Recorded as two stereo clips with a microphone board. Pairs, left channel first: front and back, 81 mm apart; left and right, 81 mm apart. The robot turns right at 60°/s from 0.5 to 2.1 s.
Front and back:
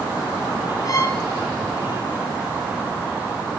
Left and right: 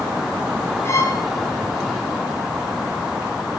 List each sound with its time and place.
0.8 s a violin: 35° left, 1.1 m; by 1.2 s 60° left, 1.1 m